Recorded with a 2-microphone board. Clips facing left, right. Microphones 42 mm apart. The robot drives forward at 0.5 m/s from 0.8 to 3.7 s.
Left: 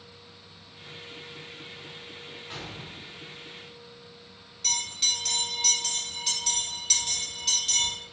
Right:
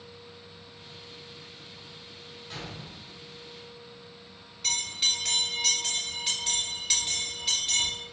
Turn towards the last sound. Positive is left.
turn(degrees=-10)  # may be behind; listen again after turning